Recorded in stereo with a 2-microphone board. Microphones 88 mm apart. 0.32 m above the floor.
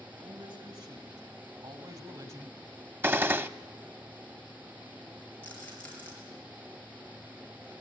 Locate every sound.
0.2 s a man speaking: 70° right (ahead or behind), 4.5 m; by 2.6 s 40° right (ahead or behind), 1.6 m
3.0 s a gunshot: 25° right (ahead or behind), 0.5 m
5.4 s a rattle: 15° left (ahead or behind), 5.5 m